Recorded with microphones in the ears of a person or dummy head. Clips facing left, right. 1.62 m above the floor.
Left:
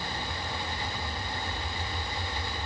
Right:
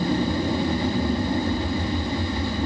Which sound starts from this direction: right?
An aircraft, at 0.0 s.